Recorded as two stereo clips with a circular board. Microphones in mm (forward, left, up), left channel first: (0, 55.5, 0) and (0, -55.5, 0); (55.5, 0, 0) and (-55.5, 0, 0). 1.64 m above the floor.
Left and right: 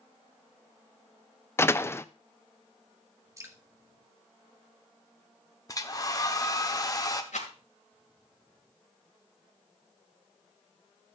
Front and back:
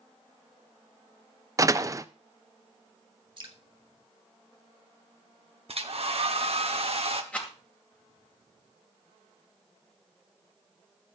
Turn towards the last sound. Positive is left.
turn(degrees=80)